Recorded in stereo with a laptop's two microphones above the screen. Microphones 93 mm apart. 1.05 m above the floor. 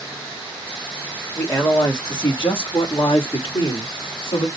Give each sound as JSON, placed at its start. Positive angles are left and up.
{"t": 1.4, "sound": "a man speaking", "side_deg": 30, "distance_m": 2.0}